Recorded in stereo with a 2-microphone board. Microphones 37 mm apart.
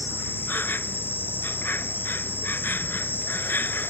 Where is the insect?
70° left (ahead or behind).